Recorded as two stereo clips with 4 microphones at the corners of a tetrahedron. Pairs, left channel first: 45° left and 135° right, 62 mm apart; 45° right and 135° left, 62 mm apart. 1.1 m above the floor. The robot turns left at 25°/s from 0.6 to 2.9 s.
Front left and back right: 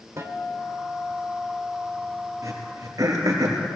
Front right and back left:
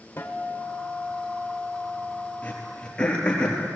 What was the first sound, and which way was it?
A guitar, 100° right.